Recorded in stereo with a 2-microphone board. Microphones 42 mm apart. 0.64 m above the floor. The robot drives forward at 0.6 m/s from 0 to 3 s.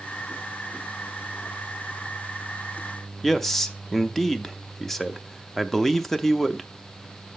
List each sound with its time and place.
3.2 s a man speaking: 5° left (ahead or behind), 0.5 m